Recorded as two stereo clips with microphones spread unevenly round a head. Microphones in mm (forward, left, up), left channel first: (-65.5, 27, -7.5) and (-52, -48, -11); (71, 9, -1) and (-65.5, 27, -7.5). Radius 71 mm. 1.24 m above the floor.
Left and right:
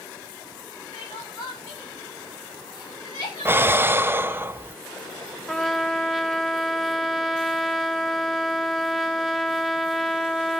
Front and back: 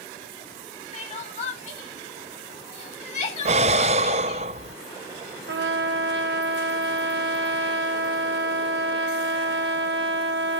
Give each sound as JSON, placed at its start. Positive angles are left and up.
{"t": 0.9, "sound": "crying", "azimuth_deg": 35, "distance_m": 3.5}
{"t": 3.5, "sound": "breathing", "azimuth_deg": -140, "distance_m": 0.6}
{"t": 5.5, "sound": "a trumpet", "azimuth_deg": -175, "distance_m": 0.9}